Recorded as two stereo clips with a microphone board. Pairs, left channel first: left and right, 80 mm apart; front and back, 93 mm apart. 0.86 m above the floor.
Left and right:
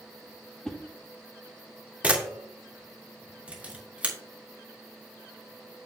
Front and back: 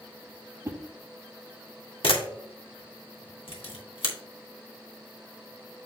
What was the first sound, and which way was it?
A whoosh, 170° left.